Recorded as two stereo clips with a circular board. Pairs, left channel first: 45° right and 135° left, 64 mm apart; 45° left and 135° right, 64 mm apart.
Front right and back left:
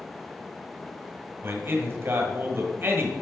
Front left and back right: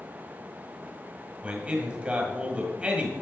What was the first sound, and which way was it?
A man speaking, 170° left.